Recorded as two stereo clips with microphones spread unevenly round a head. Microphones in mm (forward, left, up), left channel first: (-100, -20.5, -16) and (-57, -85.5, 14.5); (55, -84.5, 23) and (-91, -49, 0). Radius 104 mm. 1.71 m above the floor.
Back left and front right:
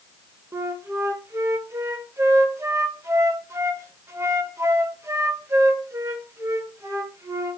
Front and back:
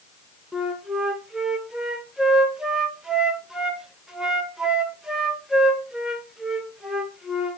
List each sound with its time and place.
0.5 s a flute: 105° right, 1.9 m